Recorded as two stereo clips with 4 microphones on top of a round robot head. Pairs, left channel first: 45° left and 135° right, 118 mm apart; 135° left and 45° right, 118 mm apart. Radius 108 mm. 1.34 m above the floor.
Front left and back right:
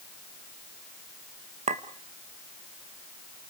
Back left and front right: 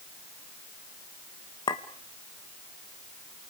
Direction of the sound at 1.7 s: 170° right.